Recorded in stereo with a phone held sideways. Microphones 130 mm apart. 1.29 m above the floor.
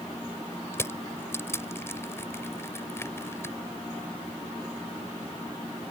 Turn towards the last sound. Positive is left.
turn(degrees=20)  # may be behind; listen again after turning